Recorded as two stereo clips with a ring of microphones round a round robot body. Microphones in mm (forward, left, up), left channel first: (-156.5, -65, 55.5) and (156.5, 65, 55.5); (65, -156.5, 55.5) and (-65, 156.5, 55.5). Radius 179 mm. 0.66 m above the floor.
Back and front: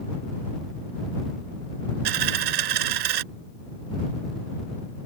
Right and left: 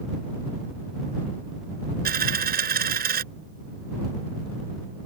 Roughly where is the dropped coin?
Ahead left.